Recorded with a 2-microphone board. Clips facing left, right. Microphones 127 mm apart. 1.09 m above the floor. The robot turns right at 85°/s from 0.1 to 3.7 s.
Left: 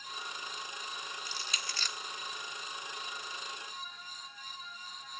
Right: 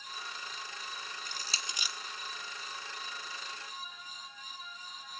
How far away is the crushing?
About 0.6 m.